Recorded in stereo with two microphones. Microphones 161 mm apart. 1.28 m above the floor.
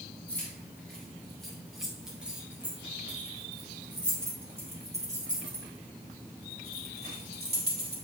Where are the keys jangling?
10° left (ahead or behind), 3.5 m; by 8.0 s 80° right, 2.5 m.